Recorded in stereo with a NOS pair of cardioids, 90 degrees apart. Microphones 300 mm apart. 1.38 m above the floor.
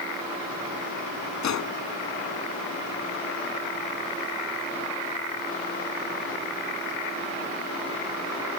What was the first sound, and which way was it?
A gunshot, 65° left.